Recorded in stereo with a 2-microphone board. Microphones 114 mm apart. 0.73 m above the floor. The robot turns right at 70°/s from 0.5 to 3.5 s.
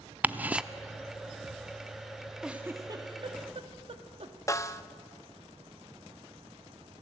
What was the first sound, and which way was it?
Ticking, 15° right (ahead or behind).